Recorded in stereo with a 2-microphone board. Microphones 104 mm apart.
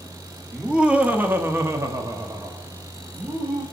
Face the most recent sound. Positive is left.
turn(degrees=-25)  # may be behind; listen again after turning